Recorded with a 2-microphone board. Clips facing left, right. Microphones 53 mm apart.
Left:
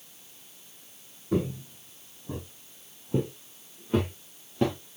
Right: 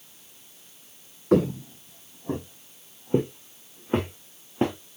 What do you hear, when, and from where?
1.3 s footsteps: 70° right (ahead or behind), 0.9 m; by 4.8 s 30° right (ahead or behind), 3 m